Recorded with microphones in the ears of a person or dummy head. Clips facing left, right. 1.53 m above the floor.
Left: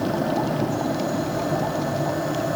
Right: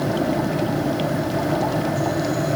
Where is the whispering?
I don't hear whispering.